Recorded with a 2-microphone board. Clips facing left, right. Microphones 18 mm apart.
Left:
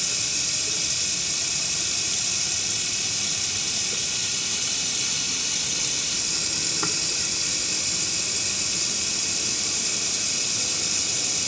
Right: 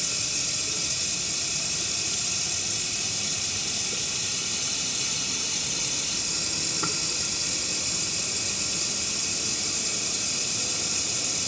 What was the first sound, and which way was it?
Running water, 25° left (ahead or behind).